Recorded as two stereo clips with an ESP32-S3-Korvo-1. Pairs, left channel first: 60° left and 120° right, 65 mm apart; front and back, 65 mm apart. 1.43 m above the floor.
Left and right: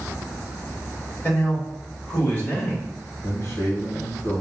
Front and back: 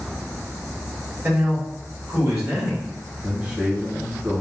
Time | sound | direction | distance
1.2 | a man speaking | 125° left | 2.5 m
3.2 | a man speaking | 105° left | 1.5 m